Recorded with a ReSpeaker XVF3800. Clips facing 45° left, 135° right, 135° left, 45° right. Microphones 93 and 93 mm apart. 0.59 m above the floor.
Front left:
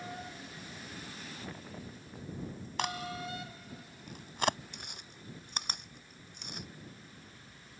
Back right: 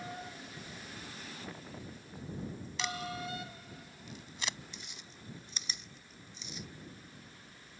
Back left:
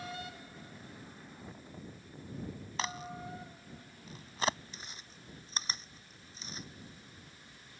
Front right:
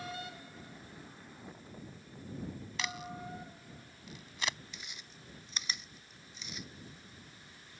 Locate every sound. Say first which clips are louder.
2.8 s a crack: front left 2 dB, back left 3 dB; 80° left
4.7 s chewing: front left 2 dB, back left 1 dB; 80° left